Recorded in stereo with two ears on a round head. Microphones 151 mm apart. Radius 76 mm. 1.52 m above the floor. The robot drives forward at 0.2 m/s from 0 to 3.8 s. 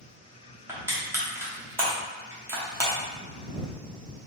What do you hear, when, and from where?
0.7 s crushing: 15° right (ahead or behind), 1.1 m